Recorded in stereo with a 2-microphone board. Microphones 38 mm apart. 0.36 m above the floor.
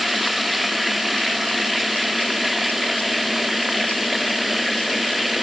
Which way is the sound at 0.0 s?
5° right (ahead or behind).